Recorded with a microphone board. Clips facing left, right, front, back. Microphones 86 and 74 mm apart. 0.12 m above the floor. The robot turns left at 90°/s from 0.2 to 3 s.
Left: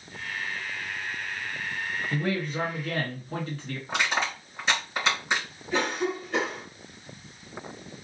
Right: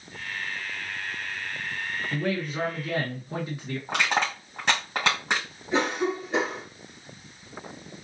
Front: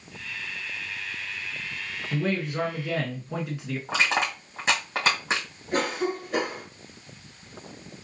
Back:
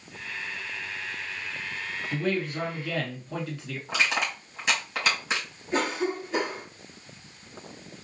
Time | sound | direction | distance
2.1 | a man speaking | 30° left | 1.2 m
3.9 | crushing | 55° right | 3 m
5.7 | a cough | 25° right | 2.5 m